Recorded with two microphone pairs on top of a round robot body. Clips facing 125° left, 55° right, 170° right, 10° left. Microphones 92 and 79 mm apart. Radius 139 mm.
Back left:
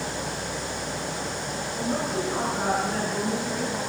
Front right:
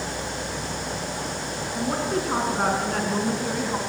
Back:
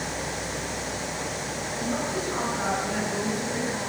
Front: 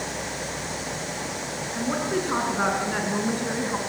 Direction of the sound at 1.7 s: 25° right.